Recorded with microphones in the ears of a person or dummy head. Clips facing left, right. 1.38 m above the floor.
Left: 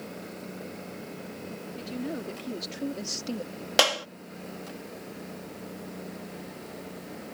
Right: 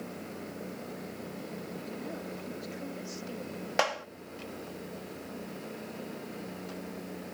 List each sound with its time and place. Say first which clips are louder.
1.8 s a woman speaking: left 9 dB; 50° left (ahead or behind); by 3.5 s 70° left (ahead or behind)
3.8 s a clap: left 4 dB; 50° left (ahead or behind)